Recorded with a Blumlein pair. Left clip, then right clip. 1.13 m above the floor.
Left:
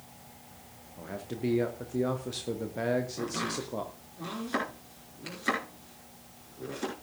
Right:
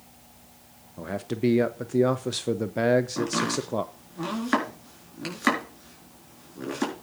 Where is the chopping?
40° right, 4.5 m.